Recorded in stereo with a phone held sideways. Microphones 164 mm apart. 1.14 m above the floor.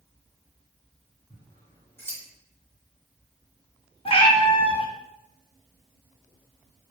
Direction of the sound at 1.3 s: 15° left (ahead or behind).